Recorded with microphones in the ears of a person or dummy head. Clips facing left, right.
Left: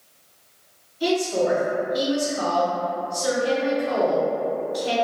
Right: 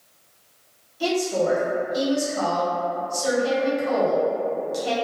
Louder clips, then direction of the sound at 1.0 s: Left 1 dB; 80° right.